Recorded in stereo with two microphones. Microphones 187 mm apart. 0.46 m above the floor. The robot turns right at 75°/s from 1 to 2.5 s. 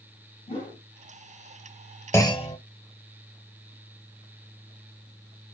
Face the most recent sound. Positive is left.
turn(degrees=40)  # may be behind; listen again after turning